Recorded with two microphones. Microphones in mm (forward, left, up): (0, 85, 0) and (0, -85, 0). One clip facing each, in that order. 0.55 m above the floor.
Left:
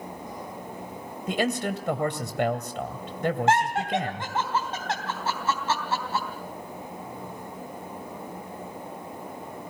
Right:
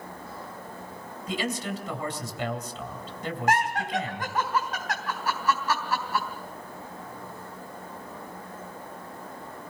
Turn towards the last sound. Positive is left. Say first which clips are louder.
# even
turn(degrees=25)  # may be behind; listen again after turning